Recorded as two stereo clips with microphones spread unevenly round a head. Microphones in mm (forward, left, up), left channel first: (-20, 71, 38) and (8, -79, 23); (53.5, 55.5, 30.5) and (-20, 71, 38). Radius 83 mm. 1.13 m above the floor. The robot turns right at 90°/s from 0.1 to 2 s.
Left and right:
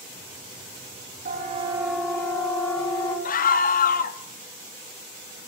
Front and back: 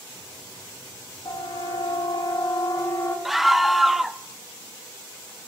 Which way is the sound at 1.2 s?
65° right.